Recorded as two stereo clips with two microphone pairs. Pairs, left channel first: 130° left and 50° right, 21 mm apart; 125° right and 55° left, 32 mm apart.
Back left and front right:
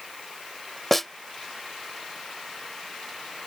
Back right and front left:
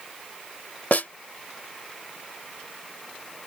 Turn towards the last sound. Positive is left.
turn(degrees=-140)